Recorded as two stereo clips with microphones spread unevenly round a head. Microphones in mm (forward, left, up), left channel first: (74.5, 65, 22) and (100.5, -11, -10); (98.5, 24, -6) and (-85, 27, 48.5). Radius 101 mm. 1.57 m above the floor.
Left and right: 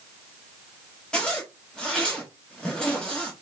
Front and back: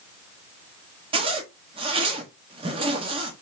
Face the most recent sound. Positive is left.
turn(degrees=160)